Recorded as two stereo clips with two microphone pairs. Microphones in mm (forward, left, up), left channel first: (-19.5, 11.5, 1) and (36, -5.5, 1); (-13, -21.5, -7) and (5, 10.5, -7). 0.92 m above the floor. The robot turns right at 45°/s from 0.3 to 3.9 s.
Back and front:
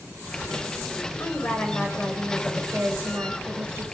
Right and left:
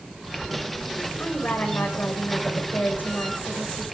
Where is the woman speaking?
160° right, 4.5 m; by 3.9 s 40° right, 4.5 m.